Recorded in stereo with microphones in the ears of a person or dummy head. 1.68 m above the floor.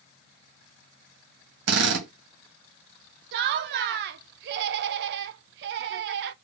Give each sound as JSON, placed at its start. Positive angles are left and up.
{"t": 1.7, "sound": "a drill", "side_deg": -65, "distance_m": 1.9}
{"t": 3.3, "sound": "laughter", "side_deg": -60, "distance_m": 0.6}